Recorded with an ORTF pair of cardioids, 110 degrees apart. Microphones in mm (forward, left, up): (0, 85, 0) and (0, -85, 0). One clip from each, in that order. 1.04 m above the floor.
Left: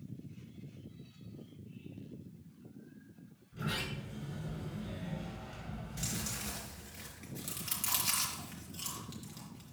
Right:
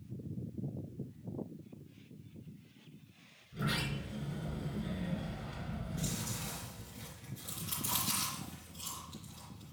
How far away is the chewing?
About 4 m.